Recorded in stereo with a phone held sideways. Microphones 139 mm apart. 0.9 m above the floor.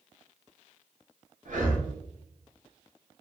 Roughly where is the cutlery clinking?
I don't hear cutlery clinking.